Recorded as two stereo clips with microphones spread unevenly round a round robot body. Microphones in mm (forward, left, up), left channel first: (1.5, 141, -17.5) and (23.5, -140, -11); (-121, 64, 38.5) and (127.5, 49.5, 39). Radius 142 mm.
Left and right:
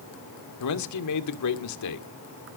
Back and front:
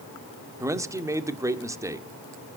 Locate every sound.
0.6 s a man speaking: 75° left, 1.7 m